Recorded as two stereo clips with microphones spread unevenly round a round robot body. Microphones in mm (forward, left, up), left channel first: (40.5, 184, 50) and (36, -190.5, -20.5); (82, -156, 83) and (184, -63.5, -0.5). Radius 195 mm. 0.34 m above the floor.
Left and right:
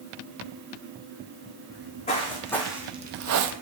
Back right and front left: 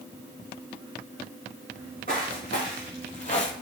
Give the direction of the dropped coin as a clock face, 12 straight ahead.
No dropped coin in this recording.